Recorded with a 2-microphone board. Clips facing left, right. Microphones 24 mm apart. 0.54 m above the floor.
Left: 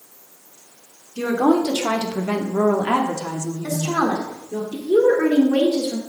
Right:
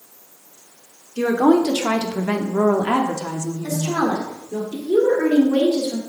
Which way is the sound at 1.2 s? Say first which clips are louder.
Right 2 dB; 40° right (ahead or behind).